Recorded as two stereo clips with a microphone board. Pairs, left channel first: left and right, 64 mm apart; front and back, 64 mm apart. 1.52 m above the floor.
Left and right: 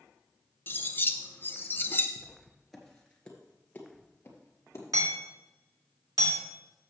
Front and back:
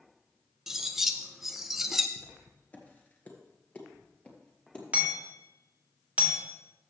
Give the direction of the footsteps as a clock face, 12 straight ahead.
1 o'clock.